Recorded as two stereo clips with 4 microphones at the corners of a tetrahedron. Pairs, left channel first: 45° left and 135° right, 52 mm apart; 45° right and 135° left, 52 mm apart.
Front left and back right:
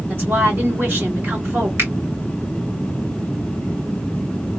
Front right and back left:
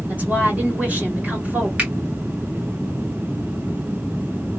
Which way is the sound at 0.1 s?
170° right.